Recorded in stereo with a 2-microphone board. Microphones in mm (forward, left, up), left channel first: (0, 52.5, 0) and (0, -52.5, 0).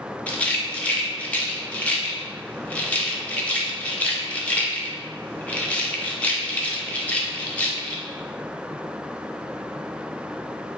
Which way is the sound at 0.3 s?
15° left (ahead or behind).